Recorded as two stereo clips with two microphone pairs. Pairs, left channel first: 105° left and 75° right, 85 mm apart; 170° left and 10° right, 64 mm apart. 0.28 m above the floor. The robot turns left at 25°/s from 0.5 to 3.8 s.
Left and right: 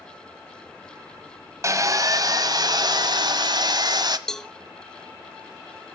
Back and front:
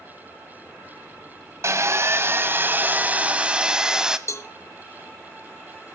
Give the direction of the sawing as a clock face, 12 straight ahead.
1 o'clock.